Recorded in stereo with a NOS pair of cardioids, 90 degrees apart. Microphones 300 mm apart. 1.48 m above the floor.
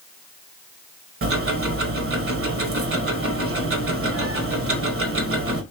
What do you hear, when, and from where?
1.2 s ticking: 45° right, 1.3 m